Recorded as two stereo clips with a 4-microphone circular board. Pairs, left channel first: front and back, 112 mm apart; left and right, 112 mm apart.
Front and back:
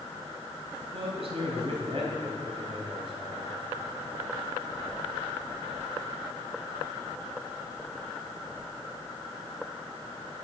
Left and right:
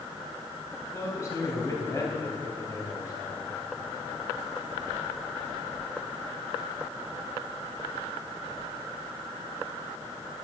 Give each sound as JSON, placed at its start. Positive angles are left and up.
{"t": 0.9, "sound": "a man speaking", "azimuth_deg": 150, "distance_m": 4.0}